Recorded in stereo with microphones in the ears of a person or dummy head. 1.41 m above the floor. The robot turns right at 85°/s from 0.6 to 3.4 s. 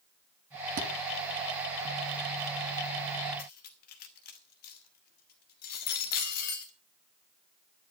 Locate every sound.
0.8 s a thud: 45° right (ahead or behind), 3 m; by 0.9 s 55° right (ahead or behind), 3 m
3.4 s cutlery clinking: 45° left (ahead or behind), 1.3 m